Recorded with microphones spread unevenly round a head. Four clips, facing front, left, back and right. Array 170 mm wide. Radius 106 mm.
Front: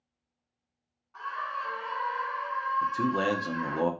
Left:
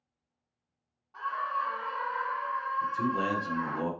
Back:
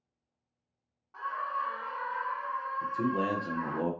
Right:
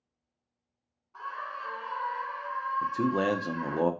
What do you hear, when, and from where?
1.1 s a scream: 170° left, 1.1 m; by 3.8 s 135° left, 2 m
2.8 s a man speaking: 65° right, 0.6 m